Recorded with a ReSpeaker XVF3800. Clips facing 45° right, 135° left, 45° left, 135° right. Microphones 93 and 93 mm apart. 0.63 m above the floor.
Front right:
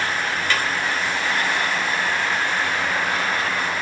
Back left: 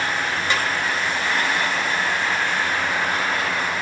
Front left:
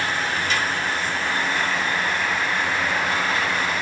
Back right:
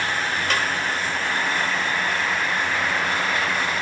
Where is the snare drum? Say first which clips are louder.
Even, back right 1 dB; 155° right, 1.4 m.